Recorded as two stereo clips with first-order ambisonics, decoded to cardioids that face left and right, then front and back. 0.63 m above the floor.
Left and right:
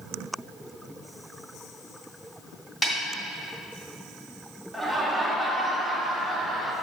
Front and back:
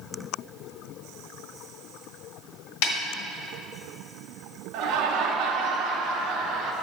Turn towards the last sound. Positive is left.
turn(degrees=180)